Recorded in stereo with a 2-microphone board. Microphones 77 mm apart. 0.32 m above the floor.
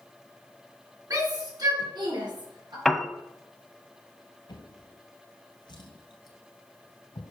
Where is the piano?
5° left (ahead or behind), 0.6 m.